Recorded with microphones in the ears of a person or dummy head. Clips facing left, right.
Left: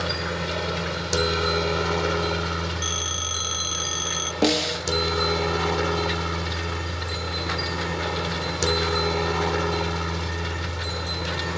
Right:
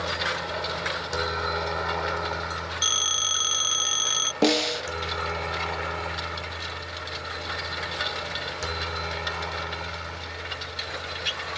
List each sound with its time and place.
0.0 s a helicopter: 40° left (ahead or behind); by 11.6 s 70° left (ahead or behind)
2.8 s a phone ringing: 20° right (ahead or behind)
4.4 s a snare drum: 5° left (ahead or behind)